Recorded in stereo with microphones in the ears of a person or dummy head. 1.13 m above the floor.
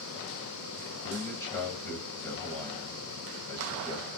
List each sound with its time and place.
1.0 s a man speaking: 5° left (ahead or behind), 2.5 m